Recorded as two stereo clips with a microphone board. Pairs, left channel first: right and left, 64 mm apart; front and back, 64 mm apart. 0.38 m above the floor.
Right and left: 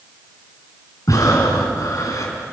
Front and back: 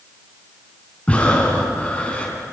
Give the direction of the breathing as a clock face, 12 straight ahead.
2 o'clock.